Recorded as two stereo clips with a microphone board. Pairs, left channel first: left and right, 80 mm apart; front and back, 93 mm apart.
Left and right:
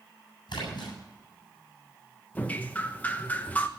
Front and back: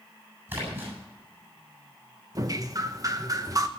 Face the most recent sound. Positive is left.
turn(degrees=150)